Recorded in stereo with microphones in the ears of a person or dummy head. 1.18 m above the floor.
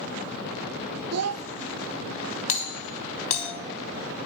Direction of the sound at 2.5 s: 40° left (ahead or behind).